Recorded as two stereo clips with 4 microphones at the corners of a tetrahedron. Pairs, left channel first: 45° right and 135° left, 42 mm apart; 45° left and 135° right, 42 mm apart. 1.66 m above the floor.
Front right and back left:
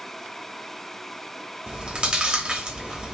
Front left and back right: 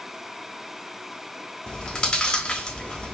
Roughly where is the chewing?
Left.